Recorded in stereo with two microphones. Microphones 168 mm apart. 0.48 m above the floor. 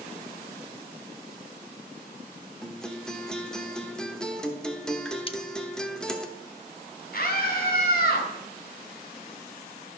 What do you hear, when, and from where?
2.6 s a guitar: 5° left (ahead or behind), 1.0 m
5.3 s cutlery clinking: 35° left (ahead or behind), 0.6 m
7.1 s a scream: 65° left (ahead or behind), 3 m